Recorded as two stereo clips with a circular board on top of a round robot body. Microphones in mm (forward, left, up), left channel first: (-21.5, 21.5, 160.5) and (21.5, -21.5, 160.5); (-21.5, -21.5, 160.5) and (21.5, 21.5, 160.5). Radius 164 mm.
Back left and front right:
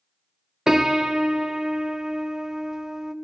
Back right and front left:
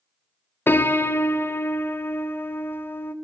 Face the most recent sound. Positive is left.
turn(degrees=-120)